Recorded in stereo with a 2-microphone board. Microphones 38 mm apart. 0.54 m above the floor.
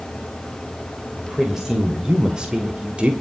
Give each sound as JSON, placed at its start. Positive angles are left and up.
{"t": 1.2, "sound": "a woman speaking", "side_deg": -10, "distance_m": 2.5}